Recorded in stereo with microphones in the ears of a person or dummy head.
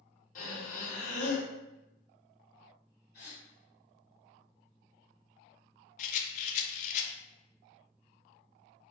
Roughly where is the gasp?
Left.